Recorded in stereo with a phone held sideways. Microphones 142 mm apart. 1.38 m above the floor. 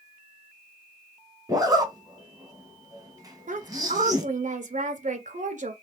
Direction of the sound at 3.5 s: 60° right (ahead or behind).